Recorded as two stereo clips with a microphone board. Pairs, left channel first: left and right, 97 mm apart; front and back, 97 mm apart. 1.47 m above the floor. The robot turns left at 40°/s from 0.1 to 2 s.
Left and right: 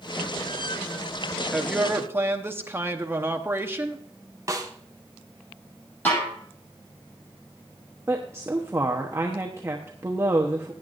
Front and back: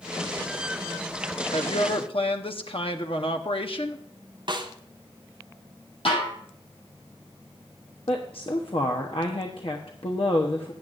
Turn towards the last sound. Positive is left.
turn(degrees=-25)